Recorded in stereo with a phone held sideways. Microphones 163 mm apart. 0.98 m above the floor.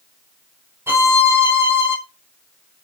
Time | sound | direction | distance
0.9 | a violin | 15° right (ahead or behind) | 3.5 m